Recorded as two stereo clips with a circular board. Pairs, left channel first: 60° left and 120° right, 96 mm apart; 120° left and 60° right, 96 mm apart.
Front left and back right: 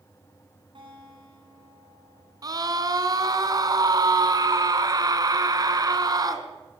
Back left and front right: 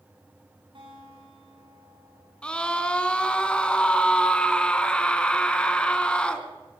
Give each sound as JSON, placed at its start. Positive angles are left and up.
{"t": 0.8, "sound": "a guitar", "azimuth_deg": -90, "distance_m": 8.0}
{"t": 2.4, "sound": "a scream", "azimuth_deg": -160, "distance_m": 2.5}